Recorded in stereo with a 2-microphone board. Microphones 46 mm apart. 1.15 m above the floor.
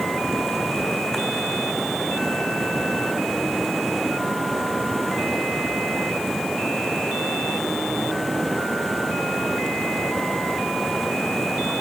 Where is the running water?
5° left (ahead or behind).